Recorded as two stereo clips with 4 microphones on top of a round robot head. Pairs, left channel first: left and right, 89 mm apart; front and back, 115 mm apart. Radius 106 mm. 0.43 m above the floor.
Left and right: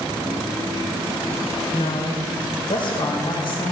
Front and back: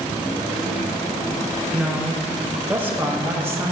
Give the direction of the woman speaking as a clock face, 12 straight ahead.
9 o'clock.